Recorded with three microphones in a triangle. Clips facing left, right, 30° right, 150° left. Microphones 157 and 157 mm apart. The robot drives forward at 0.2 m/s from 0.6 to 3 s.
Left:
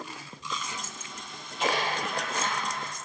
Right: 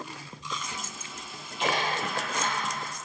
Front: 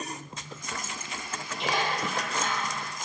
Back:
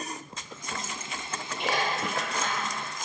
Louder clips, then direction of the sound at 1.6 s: Even, even; 135° left.